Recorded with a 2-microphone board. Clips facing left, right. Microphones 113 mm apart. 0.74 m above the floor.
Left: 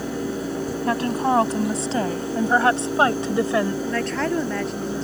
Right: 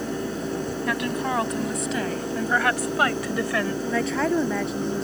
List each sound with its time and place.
0.9 s a woman speaking: 35° left (ahead or behind); by 3.8 s 25° left (ahead or behind)
3.9 s a woman speaking: 5° right (ahead or behind)